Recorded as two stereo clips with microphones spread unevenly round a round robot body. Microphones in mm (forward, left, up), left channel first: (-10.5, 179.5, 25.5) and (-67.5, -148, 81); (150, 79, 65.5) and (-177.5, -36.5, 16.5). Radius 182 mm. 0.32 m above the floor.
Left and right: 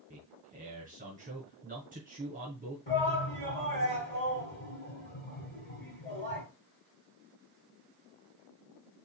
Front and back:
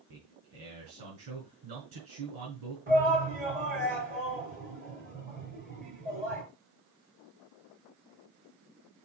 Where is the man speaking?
170° right, 3.5 m.